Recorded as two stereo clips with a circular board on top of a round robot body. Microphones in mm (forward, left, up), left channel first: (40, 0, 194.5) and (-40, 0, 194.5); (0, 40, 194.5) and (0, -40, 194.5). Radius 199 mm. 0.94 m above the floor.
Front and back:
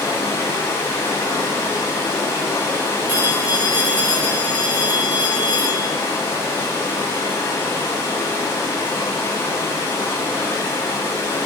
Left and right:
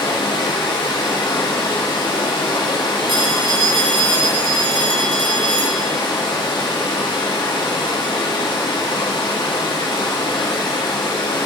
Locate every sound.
0.0 s running water: 60° left, 0.8 m
3.1 s a phone ringing: 110° right, 0.6 m